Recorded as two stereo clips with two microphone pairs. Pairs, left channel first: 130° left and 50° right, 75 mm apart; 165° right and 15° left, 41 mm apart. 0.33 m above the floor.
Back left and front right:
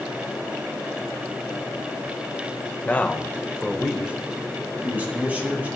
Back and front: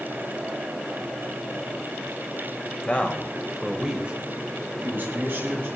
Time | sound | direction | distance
2.9 | a man speaking | straight behind | 1.4 m